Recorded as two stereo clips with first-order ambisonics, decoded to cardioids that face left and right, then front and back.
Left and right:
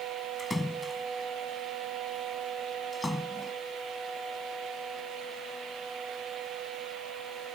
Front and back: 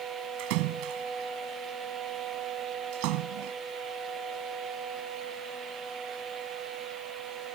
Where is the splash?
175° left.